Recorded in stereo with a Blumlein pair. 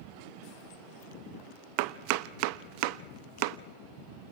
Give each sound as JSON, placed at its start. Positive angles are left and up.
{"t": 1.8, "sound": "chopping", "azimuth_deg": -45, "distance_m": 0.7}